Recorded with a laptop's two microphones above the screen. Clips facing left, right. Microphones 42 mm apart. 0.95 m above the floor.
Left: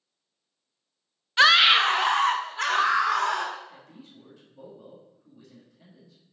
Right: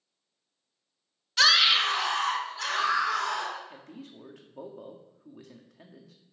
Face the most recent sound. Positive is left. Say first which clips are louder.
# right 3 dB
turn(degrees=-75)  # may be behind; listen again after turning